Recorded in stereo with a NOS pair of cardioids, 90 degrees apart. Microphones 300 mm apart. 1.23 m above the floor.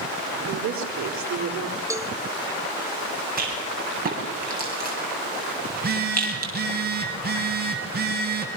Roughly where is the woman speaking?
Ahead right.